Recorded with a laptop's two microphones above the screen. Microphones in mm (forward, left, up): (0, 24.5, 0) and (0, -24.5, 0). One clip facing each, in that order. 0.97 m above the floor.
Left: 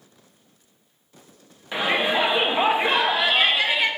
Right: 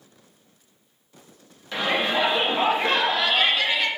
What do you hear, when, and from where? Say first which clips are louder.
1.7 s a shout: left 1 dB; 15° left (ahead or behind), 0.7 m